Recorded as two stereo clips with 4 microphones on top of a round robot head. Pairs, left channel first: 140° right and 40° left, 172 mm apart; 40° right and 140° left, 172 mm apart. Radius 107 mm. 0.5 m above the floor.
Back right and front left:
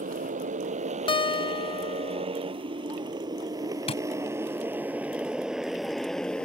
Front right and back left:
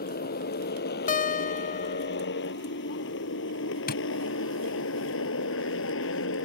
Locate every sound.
0.0 s a motorcycle: 5° right; by 6.5 s 55° right
1.1 s a guitar: 80° right
3.9 s tapping: 80° right